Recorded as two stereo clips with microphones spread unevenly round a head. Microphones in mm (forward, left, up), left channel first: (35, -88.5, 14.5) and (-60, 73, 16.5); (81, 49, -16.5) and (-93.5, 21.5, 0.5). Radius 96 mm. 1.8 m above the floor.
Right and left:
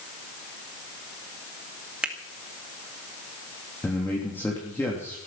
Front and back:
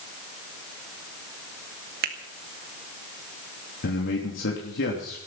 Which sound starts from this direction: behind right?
A finger snap, at 2.0 s.